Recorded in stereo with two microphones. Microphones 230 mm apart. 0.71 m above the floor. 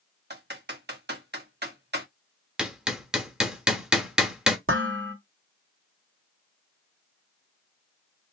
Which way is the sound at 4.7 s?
75° right (ahead or behind).